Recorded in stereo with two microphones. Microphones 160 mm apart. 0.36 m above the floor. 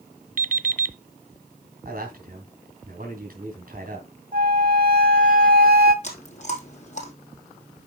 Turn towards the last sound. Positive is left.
turn(degrees=50)  # may be behind; listen again after turning